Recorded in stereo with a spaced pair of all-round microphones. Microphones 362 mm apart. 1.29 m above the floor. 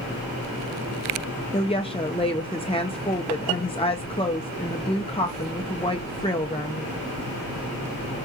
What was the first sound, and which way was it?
A woman speaking, 15° left (ahead or behind).